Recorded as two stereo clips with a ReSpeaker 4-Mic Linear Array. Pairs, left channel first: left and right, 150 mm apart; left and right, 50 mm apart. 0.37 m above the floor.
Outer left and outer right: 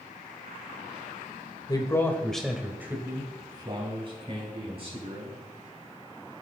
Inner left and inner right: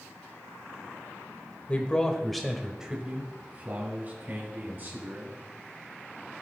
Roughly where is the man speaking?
Left.